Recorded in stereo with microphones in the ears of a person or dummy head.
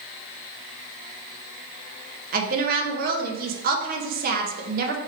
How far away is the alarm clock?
I don't hear an alarm clock.